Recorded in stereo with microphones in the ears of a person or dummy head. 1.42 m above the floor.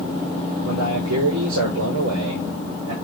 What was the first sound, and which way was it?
A man speaking, 85° right.